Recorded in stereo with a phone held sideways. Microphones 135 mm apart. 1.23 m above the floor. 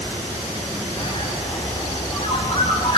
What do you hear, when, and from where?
1.0 s a bird: 40° left (ahead or behind), 6 m